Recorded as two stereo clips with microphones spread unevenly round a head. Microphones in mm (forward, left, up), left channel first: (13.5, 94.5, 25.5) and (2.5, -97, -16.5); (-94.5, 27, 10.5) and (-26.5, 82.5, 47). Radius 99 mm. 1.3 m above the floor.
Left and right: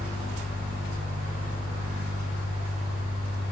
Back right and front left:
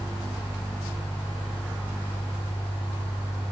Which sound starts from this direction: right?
A fan, at 0.0 s.